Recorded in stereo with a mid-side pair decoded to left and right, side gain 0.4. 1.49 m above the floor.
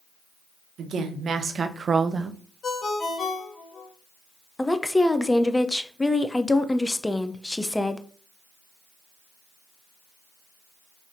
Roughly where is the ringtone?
Ahead left.